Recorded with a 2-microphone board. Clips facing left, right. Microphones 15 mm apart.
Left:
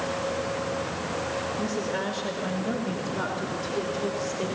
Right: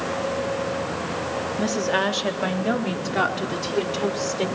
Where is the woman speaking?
80° right, 2 m; by 4.5 s 55° right (ahead or behind), 4 m.